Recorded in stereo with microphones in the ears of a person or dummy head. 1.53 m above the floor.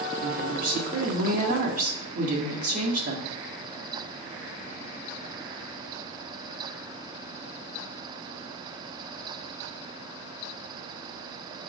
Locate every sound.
0.2 s a woman speaking: 40° right (ahead or behind), 1.6 m